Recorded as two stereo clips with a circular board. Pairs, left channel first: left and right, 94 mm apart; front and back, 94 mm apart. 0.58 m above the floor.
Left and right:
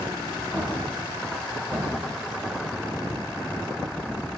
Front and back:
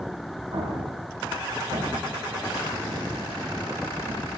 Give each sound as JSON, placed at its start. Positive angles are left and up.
{"t": 0.5, "sound": "an explosion", "azimuth_deg": -160, "distance_m": 1.2}